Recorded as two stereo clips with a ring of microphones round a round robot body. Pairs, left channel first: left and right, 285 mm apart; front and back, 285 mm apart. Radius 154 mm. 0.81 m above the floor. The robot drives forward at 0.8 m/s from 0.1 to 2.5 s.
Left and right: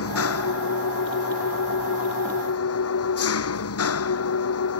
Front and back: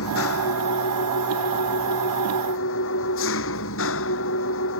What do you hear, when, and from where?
0.0 s an engine running: 50° left; by 4.8 s 55° left